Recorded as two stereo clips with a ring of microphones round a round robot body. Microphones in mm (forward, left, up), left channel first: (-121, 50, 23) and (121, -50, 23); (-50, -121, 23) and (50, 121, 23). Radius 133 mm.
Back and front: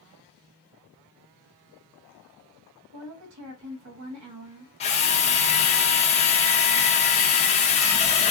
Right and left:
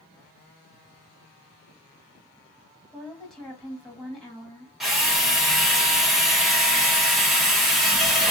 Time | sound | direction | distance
2.9 | a woman speaking | 25° right | 1.9 m
4.8 | a drill | 155° left | 1.0 m